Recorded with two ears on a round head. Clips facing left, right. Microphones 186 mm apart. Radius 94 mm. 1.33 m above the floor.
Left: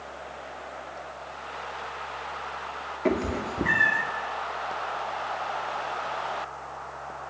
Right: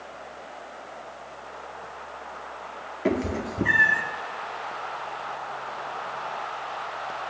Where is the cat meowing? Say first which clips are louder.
Right 1 dB; 5° right (ahead or behind), 1.2 m.